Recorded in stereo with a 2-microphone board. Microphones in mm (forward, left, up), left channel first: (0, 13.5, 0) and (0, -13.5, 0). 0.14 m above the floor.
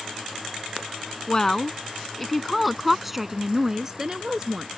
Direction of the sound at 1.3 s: 25° left (ahead or behind).